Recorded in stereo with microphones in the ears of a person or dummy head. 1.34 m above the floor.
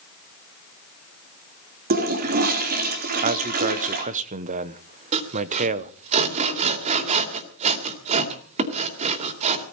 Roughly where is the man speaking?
Right.